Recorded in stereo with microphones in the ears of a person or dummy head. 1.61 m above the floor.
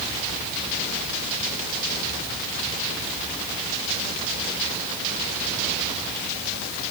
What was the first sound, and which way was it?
Only background noise.